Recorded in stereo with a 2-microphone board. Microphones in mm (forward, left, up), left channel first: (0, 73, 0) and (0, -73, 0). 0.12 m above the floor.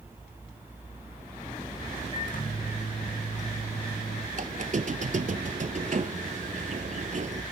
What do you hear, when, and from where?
2.1 s a microwave: 55° left (ahead or behind), 4.5 m
4.3 s a squeak: 55° right (ahead or behind), 0.5 m